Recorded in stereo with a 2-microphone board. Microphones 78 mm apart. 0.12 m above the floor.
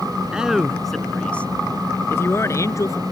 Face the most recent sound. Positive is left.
turn(degrees=45)  # may be behind; listen again after turning